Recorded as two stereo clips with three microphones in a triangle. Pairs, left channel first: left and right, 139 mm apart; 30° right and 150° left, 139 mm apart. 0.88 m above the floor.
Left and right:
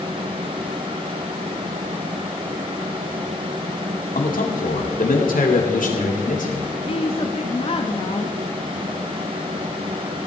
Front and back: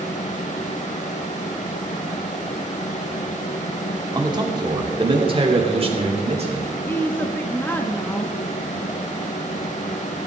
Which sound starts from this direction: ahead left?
A woman speaking, at 6.9 s.